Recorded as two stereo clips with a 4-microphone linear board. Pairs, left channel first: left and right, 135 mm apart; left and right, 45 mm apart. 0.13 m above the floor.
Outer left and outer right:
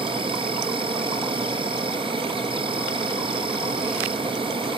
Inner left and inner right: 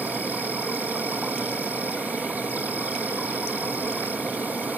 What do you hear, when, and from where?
0.0 s an insect: 40° right (ahead or behind), 1.1 m